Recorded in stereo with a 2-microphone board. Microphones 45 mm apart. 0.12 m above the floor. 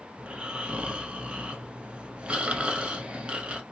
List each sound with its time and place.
0.2 s snoring: 25° right (ahead or behind), 1.0 m